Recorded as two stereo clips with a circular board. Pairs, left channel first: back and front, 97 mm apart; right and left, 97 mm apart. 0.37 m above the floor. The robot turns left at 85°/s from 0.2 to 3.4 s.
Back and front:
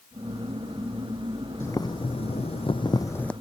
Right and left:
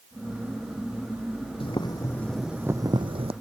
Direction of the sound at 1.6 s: 115° right.